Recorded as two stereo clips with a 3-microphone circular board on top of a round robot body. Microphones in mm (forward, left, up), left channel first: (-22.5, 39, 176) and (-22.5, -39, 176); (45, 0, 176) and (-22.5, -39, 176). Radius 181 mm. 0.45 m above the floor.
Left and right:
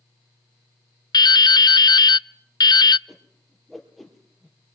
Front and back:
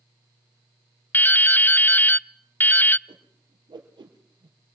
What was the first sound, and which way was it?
Dripping, 90° left.